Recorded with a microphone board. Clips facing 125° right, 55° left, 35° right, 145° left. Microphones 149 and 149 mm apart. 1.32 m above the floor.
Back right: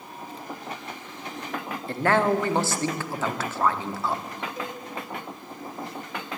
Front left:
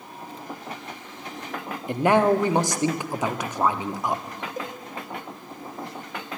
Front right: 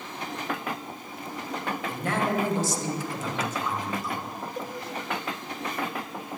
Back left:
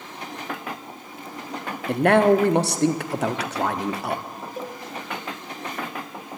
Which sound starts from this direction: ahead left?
A cowbell, at 4.6 s.